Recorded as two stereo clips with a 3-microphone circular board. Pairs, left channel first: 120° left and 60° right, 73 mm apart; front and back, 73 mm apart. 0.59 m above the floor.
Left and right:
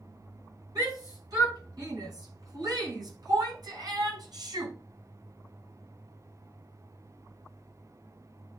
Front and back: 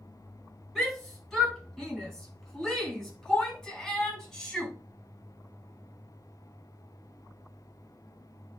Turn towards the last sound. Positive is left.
turn(degrees=-80)